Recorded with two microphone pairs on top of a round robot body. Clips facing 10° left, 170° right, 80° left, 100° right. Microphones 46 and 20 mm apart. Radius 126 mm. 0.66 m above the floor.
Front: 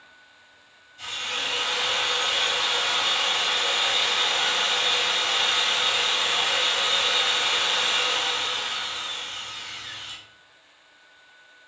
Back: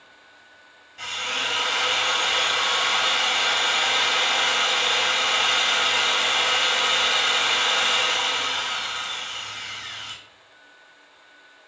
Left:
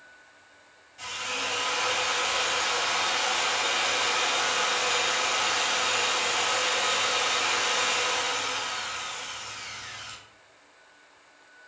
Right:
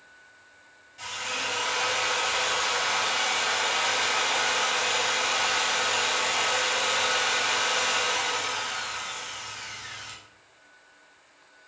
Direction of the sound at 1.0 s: Straight behind.